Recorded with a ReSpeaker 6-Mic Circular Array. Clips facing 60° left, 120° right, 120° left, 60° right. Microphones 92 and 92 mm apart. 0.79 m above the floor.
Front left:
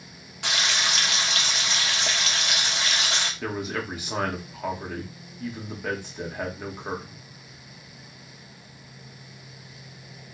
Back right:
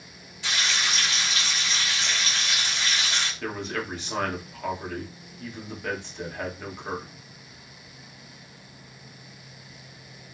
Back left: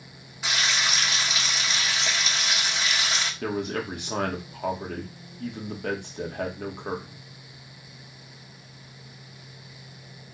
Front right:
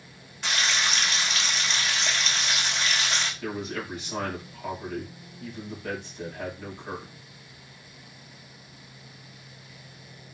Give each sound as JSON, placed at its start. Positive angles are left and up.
{"t": 0.4, "sound": "frying", "azimuth_deg": 35, "distance_m": 1.3}
{"t": 3.4, "sound": "a man speaking", "azimuth_deg": 140, "distance_m": 1.6}